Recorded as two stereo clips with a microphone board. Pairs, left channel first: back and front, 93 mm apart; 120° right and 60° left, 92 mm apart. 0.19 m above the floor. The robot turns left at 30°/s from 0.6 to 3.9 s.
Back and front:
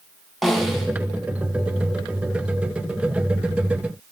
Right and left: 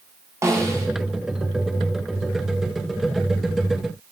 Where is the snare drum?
90° left, 1.5 m; by 0.9 s 80° left, 1.5 m.